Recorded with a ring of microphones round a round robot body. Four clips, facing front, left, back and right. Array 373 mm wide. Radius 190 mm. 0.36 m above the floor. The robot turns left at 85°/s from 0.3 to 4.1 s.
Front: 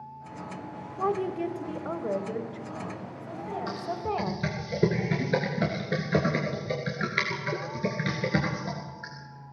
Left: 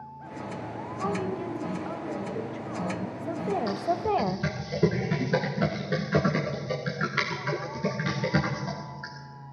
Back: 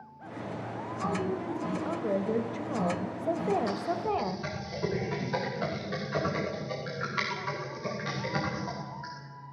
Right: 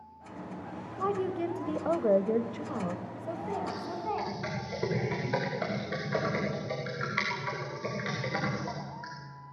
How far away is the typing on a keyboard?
About 5.5 m.